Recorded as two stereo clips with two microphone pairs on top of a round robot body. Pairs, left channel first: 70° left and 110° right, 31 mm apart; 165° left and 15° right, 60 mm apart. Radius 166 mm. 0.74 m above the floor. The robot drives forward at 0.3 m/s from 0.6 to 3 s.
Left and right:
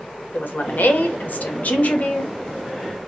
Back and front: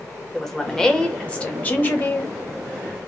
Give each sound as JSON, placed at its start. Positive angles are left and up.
{"t": 0.3, "sound": "a woman speaking", "azimuth_deg": 85, "distance_m": 0.9}